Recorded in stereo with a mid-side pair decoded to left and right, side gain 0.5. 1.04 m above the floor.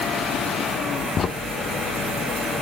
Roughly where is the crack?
Ahead left.